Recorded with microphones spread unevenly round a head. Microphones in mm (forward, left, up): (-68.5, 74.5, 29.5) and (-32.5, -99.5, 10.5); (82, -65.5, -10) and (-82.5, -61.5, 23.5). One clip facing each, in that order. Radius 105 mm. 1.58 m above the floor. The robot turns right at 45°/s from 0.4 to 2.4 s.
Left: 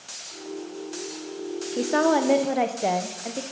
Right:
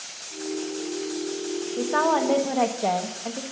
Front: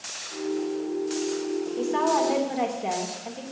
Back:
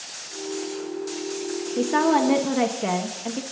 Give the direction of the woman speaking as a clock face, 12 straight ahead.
7 o'clock.